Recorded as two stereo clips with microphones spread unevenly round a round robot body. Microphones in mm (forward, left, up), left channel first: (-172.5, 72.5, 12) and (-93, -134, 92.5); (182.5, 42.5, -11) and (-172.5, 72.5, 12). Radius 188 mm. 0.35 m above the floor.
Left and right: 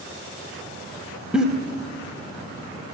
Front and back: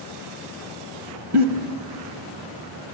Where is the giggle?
165° right, 1.3 m.